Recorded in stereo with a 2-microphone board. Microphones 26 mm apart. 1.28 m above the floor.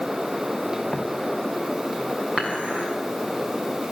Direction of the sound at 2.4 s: 60° right (ahead or behind).